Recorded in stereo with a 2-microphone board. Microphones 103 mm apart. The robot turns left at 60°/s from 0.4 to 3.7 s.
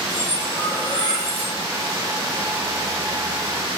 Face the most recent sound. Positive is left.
turn(degrees=120)